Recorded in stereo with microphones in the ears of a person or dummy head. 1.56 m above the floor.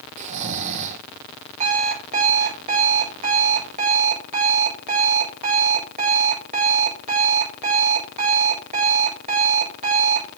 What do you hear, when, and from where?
0.2 s snoring: 40° right (ahead or behind), 1.2 m
1.6 s an alarm clock: 40° right (ahead or behind), 4.5 m